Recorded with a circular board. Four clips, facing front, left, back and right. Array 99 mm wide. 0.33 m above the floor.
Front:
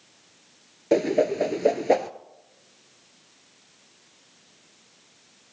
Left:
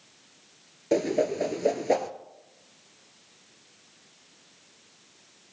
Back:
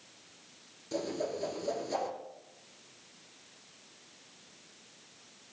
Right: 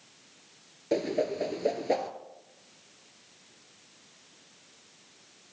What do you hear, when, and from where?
0.9 s a whoosh: 10° left, 0.9 m